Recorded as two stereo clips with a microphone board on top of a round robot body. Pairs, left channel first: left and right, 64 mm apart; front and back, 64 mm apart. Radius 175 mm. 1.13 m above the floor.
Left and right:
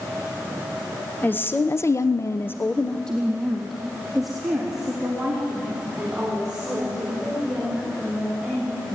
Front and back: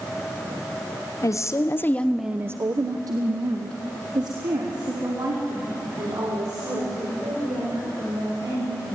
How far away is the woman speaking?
About 1.6 m.